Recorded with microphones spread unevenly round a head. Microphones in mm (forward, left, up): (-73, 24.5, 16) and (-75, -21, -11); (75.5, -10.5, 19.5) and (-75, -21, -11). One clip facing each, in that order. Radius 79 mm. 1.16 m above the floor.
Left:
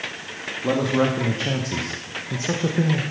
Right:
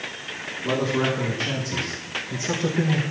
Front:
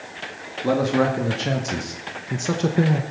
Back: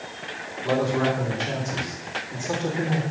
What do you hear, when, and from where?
0.6 s a man speaking: 20° left, 2 m; by 3.0 s 5° right, 1.1 m